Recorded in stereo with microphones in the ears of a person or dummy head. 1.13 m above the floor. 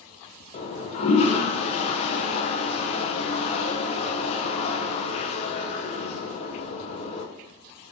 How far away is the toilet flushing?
About 0.7 m.